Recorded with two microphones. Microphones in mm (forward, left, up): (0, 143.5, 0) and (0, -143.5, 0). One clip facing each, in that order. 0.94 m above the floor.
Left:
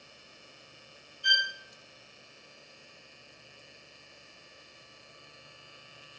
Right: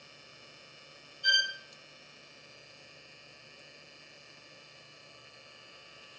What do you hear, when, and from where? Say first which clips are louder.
1.2 s a violin: even; 45° right (ahead or behind), 1.1 m